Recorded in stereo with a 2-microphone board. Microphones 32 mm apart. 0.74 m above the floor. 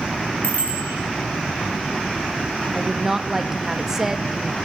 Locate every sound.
0.4 s a bicycle bell: 70° left (ahead or behind), 3 m
2.7 s a woman speaking: 15° right (ahead or behind), 0.8 m